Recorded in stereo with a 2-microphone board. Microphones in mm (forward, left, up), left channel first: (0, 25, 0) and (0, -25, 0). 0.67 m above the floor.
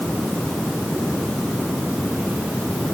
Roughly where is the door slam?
I don't hear a door slam.